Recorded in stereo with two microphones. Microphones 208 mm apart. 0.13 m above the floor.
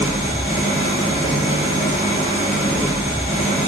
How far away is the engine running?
About 0.9 m.